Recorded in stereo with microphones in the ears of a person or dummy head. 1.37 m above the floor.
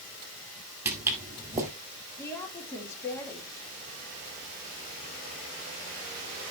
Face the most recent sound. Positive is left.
turn(degrees=15)  # may be behind; listen again after turning